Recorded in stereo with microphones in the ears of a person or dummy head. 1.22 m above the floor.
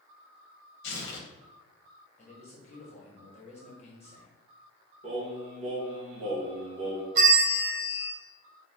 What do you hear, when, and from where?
0.8 s tearing paper: 70° left (ahead or behind), 0.9 m
2.2 s a man speaking: 40° left (ahead or behind), 1.0 m
5.0 s singing: 35° right (ahead or behind), 1.2 m
7.2 s a bell: 45° right (ahead or behind), 0.7 m